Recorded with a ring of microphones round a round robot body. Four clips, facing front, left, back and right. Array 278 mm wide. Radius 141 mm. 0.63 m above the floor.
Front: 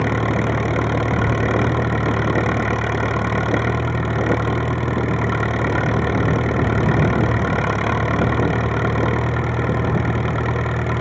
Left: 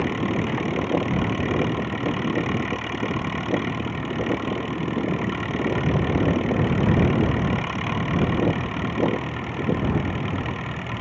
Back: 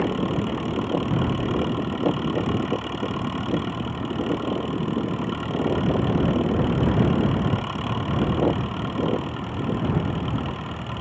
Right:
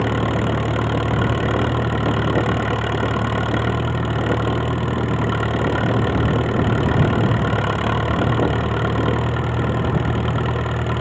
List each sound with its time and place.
0.0 s an engine running: 40° right